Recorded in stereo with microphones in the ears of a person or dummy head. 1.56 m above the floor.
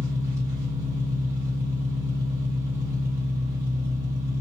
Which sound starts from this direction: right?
An engine running, at 0.0 s.